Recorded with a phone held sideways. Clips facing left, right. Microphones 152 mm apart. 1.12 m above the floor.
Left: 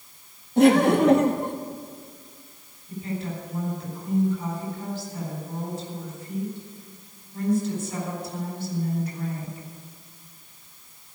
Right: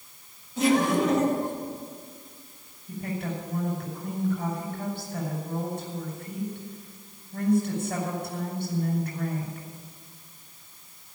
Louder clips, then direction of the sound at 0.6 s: Left 6 dB; 65° left (ahead or behind).